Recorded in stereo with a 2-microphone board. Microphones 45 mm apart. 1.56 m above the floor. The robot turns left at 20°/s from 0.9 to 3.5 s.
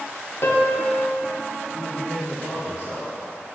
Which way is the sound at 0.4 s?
60° left (ahead or behind).